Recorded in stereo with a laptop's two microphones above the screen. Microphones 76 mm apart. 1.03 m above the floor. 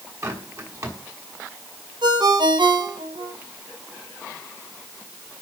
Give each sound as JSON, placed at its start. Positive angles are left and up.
{"t": 0.2, "sound": "a bird", "side_deg": -45, "distance_m": 6.0}
{"t": 2.0, "sound": "a ringtone", "side_deg": -75, "distance_m": 3.0}